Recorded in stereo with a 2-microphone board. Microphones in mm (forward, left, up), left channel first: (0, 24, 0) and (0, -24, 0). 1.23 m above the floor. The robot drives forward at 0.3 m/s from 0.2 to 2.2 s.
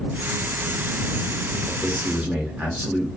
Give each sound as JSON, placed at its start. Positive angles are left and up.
{"t": 1.7, "sound": "a man speaking", "side_deg": -35, "distance_m": 0.9}